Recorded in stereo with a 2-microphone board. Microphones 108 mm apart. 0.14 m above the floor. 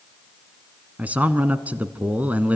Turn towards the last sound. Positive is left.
turn(degrees=-15)  # may be behind; listen again after turning